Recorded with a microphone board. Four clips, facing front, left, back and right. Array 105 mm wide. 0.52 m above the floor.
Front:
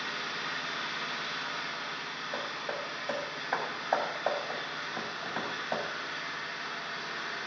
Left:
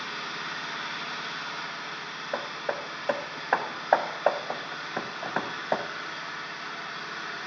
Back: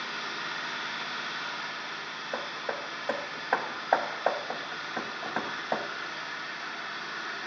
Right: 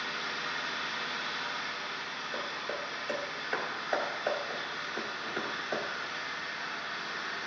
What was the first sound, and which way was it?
An engine running, 80° left.